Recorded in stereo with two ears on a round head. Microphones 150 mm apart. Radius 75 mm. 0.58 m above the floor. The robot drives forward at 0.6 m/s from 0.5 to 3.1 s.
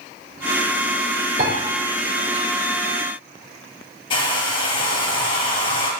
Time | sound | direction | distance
1.4 | a piano | 50° right (ahead or behind) | 3.5 m
4.1 | a hair dryer | 30° left (ahead or behind) | 2 m